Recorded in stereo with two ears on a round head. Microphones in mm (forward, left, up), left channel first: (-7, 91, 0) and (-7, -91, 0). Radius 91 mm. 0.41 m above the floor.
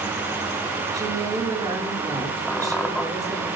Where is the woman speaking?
20° right (ahead or behind), 6 m.